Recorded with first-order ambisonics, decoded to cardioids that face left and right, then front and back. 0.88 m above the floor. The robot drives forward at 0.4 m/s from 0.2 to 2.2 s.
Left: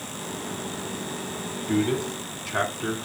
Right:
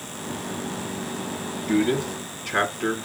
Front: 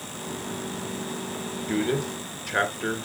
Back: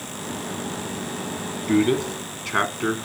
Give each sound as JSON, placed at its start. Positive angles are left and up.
{"t": 1.7, "sound": "a man speaking", "azimuth_deg": -175, "distance_m": 1.9}